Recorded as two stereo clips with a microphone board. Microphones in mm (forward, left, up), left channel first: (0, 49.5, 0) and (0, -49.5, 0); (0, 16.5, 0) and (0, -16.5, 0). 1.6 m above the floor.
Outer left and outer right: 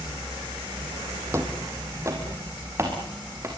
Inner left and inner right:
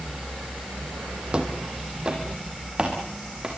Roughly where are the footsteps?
Right.